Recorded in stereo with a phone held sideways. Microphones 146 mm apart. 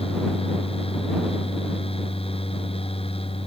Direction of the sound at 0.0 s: 40° left (ahead or behind).